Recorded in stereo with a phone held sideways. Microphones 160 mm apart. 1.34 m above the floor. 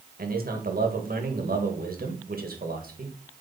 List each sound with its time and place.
0.2 s a man speaking: 70° right (ahead or behind), 1.8 m